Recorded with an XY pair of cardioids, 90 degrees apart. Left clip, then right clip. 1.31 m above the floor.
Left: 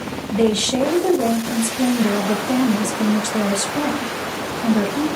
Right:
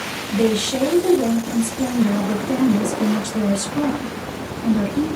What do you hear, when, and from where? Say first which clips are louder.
0.3 s a woman speaking: left 2 dB; 50° left, 1.3 m